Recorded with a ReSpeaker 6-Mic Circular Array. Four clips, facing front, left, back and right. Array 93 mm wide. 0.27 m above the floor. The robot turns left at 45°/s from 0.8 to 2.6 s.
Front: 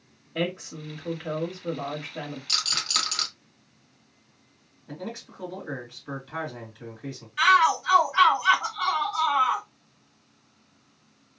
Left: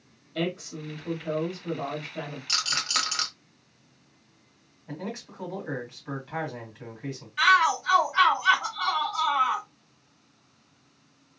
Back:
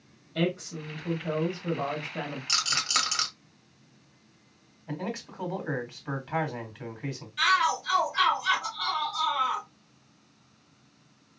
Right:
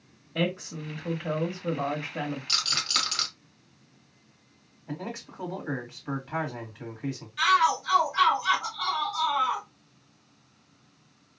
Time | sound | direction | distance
0.3 | a woman speaking | 50° right | 1.0 m
2.5 | a rattle | 155° left | 1.4 m
4.9 | a man speaking | 165° right | 1.6 m
7.4 | a shout | 40° left | 1.1 m